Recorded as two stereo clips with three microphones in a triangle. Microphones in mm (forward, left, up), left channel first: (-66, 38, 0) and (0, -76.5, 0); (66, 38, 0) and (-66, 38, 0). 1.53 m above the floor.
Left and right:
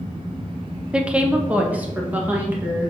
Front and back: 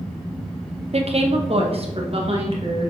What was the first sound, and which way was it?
A woman speaking, 145° right.